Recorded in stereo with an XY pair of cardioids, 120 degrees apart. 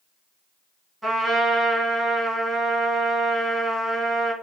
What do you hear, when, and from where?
1.0 s a trumpet: 10° right, 1.4 m